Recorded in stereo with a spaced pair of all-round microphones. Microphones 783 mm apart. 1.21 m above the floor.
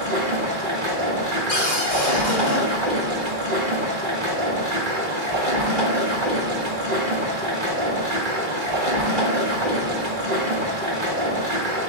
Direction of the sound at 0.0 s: 75° right (ahead or behind).